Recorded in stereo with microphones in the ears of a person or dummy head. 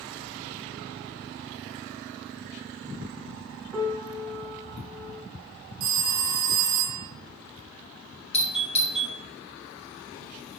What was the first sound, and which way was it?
A piano, 5° left (ahead or behind).